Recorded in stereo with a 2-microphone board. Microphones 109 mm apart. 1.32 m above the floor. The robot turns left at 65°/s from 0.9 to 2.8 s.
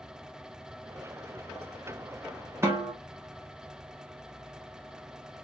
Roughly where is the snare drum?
Right.